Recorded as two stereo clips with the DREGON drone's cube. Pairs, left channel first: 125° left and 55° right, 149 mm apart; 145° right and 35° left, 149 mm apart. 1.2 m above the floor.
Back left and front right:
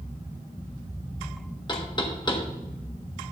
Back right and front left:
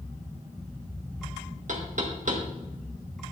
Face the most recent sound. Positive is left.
turn(degrees=65)